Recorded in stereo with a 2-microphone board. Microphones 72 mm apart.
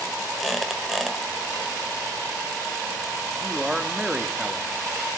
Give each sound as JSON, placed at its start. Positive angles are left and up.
{"t": 0.4, "sound": "a squeak", "side_deg": 0, "distance_m": 1.2}
{"t": 3.4, "sound": "a man speaking", "side_deg": -10, "distance_m": 0.8}